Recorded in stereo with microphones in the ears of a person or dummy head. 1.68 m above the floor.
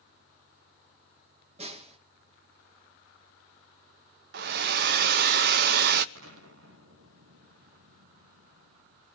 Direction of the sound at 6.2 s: 85° right.